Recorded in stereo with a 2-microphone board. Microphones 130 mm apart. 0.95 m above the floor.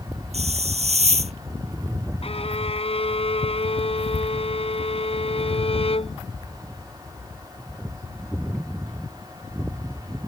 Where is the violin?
50° left (ahead or behind).